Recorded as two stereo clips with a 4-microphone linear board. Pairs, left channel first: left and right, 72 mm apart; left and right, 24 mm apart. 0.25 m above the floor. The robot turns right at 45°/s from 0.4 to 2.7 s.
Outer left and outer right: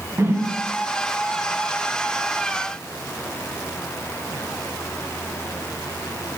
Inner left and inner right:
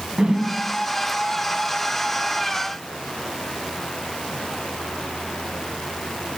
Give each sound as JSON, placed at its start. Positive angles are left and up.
{"t": 0.2, "sound": "a whoosh", "side_deg": -40, "distance_m": 0.9}